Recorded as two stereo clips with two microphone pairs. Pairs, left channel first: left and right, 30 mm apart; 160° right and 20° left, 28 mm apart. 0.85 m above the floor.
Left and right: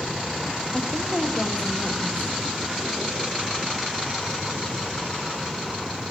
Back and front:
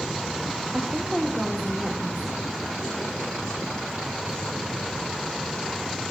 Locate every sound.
0.7 s a woman speaking: 80° left, 2.5 m